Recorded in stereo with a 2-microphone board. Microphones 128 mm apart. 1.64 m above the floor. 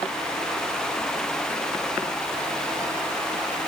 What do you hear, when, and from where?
Only background noise.